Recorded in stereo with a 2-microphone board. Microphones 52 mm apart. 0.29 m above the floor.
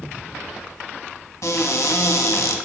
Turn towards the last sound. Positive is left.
turn(degrees=75)  # may be behind; listen again after turning